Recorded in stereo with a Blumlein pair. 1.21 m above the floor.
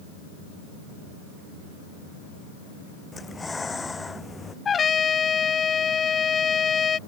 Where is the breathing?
10° left.